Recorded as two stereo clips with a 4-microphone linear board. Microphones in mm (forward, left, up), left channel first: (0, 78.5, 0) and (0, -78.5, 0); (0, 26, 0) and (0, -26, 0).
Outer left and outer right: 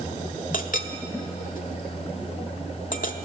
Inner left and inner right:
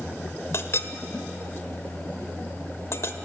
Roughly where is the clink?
Left.